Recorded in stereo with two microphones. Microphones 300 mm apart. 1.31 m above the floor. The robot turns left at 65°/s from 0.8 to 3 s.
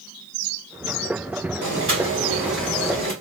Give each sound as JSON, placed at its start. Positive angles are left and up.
{"t": 1.6, "sound": "boiling", "azimuth_deg": -120, "distance_m": 1.7}